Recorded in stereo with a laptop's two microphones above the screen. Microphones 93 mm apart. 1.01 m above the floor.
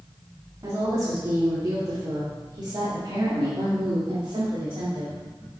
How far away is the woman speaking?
About 2.5 m.